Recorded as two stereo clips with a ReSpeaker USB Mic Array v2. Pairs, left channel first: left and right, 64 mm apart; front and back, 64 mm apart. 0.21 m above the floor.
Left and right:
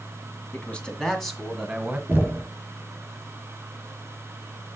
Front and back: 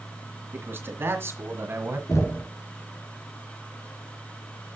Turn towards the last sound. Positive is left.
turn(degrees=-35)